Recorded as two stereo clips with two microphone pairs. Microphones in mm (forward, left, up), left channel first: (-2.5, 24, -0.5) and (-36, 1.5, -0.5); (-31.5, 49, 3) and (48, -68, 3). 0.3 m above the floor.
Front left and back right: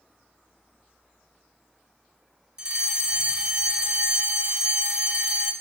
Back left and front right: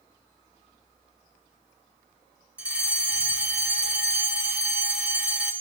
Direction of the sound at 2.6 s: 115° right.